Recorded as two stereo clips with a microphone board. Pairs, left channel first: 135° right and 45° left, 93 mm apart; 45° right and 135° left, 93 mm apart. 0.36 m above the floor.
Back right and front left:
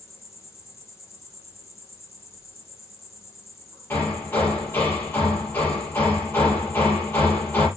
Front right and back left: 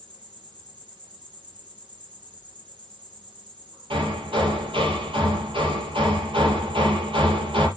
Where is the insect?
170° left, 6 m.